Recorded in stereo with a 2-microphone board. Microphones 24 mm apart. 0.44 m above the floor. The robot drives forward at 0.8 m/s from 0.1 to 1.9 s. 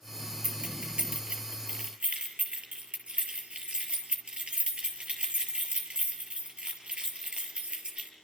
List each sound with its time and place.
0.4 s keys jangling: 55° right (ahead or behind), 5 m; by 8.1 s 45° right (ahead or behind), 5.5 m